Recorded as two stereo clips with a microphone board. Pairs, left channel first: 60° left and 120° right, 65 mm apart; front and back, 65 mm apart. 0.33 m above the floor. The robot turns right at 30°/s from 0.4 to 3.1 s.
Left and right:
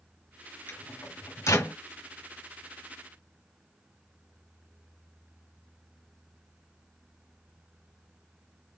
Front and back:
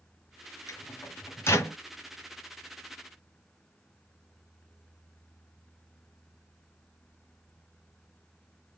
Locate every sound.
0.7 s a microwave: 15° left, 1.5 m; by 1.8 s 45° left, 1.5 m